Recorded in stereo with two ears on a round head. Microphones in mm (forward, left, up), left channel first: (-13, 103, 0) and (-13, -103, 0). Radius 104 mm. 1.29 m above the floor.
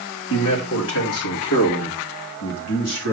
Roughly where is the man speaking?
Left.